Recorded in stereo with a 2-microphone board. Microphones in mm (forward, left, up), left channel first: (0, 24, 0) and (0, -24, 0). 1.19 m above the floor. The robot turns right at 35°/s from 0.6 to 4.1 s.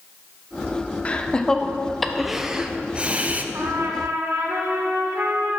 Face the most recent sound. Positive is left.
turn(degrees=-70)  # may be behind; listen again after turning